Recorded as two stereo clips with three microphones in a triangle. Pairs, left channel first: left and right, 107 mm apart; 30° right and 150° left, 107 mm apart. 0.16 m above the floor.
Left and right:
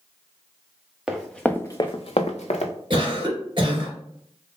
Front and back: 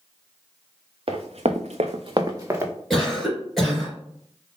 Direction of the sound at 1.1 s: 170° right.